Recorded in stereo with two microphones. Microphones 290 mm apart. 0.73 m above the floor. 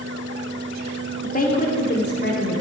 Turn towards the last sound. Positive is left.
turn(degrees=40)  # may be behind; listen again after turning